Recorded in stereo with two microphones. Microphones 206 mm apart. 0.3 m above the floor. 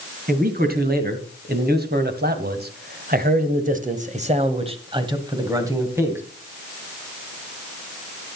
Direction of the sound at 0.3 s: 45° right (ahead or behind).